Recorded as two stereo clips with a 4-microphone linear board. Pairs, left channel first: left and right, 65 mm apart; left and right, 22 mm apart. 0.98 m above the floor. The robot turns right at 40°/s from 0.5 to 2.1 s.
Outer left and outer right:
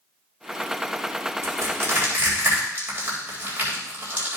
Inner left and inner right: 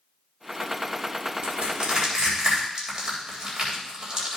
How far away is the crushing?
About 3.5 m.